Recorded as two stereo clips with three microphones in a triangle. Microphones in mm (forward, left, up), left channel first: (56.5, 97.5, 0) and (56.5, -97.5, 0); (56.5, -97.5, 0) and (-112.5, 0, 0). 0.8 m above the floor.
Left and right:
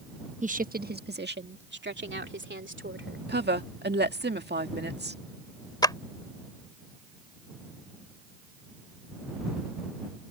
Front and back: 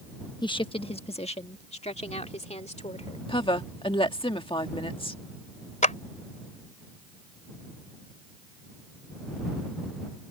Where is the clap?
20° left.